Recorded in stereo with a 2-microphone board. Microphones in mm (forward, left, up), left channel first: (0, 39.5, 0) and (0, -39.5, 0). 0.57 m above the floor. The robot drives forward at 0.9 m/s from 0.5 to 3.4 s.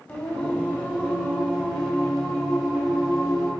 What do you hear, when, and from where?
0.1 s singing: 20° left (ahead or behind), 1.7 m; by 3.5 s 10° left (ahead or behind), 4 m